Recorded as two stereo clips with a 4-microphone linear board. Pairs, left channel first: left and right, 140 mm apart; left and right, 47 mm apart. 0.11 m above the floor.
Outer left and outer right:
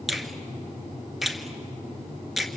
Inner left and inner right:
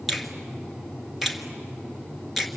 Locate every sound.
0.1 s a finger snap: centre (ahead or behind), 1.8 m